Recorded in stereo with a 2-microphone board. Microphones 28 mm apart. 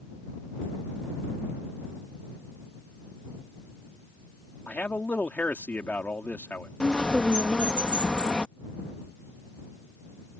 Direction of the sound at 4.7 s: 90° left.